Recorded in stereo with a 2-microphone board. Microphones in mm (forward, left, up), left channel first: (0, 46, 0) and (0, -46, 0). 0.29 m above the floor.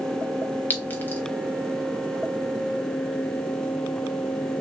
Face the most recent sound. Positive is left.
turn(degrees=20)  # may be behind; listen again after turning